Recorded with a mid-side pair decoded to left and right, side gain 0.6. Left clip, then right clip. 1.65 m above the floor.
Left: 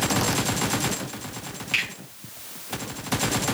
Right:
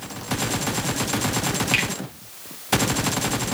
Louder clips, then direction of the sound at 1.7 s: Right 1 dB; 30° right.